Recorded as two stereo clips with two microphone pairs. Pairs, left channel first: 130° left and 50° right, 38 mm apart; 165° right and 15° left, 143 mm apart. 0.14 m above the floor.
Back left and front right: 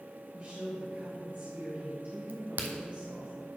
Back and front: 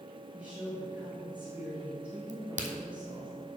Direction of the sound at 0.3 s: 65° right.